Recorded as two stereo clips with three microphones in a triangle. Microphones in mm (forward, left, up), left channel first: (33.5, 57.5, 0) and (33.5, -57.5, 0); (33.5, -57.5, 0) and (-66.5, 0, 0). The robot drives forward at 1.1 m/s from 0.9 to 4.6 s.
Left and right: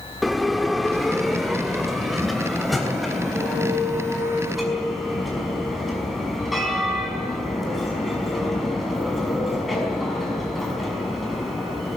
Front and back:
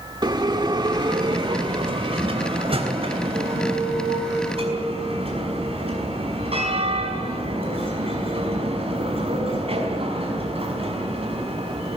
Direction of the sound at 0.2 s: Straight behind.